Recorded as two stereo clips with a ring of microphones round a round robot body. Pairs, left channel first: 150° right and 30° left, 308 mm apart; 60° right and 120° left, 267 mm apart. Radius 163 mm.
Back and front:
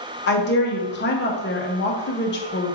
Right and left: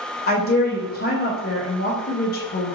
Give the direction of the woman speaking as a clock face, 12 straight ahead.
3 o'clock.